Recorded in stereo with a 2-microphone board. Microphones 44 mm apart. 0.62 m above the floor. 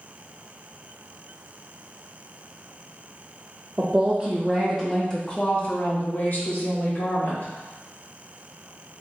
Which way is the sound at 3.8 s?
30° right (ahead or behind).